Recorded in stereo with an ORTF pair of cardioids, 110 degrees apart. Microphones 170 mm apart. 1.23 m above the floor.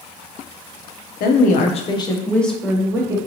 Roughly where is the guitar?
No guitar in this recording.